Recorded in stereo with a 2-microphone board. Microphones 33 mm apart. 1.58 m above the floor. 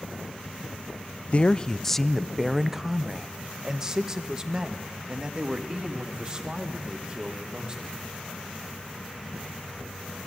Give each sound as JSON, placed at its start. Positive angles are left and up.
{"t": 1.3, "sound": "a man speaking", "side_deg": 40, "distance_m": 0.5}